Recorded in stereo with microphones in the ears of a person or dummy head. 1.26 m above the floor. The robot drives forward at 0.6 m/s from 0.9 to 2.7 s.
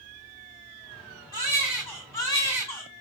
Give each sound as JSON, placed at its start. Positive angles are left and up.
{"t": 1.3, "sound": "a baby crying", "side_deg": 25, "distance_m": 2.5}